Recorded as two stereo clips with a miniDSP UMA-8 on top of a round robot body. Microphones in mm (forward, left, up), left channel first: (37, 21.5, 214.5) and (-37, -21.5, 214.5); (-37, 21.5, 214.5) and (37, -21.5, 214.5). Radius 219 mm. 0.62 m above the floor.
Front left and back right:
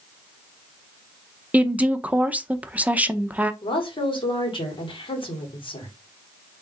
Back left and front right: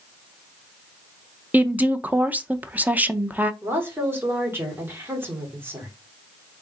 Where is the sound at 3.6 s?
35° left, 2.5 m.